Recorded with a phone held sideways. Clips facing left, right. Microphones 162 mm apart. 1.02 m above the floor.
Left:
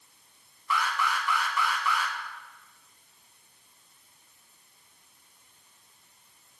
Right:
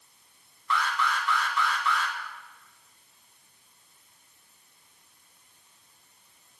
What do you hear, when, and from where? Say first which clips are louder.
0.7 s an alarm: right 1 dB; 10° left (ahead or behind), 1.9 m